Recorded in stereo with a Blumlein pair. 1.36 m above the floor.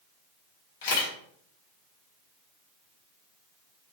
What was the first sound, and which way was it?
A camera shutter, 55° left.